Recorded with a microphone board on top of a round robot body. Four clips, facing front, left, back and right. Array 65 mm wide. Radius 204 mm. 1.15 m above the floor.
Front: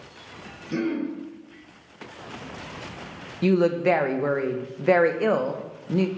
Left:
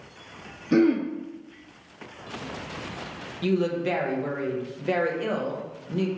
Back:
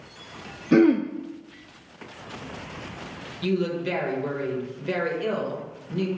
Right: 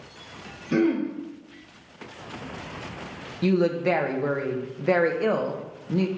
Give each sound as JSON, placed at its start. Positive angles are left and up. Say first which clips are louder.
{"t": 0.7, "sound": "throat clearing", "louder": "left 2 dB, back 9 dB", "azimuth_deg": 165, "distance_m": 0.8}
{"t": 3.4, "sound": "a woman speaking", "louder": "right 3 dB, front 6 dB", "azimuth_deg": -25, "distance_m": 0.9}